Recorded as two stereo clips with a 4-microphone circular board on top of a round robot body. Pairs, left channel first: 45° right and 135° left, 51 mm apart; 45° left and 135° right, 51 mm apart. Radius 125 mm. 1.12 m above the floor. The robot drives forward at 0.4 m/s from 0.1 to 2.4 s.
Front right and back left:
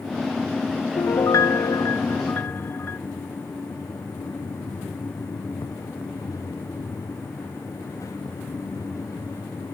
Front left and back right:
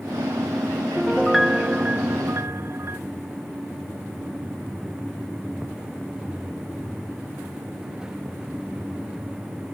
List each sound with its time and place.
1.0 s a piano: 40° right, 0.7 m; by 3.0 s 95° right, 0.5 m